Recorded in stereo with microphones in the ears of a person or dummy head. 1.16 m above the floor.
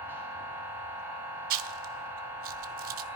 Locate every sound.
0.0 s a machine running: 15° right (ahead or behind), 3 m
1.5 s chewing: 45° right (ahead or behind), 0.7 m